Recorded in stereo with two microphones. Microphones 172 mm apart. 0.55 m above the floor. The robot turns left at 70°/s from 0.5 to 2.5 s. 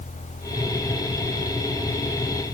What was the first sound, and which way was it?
Only background noise.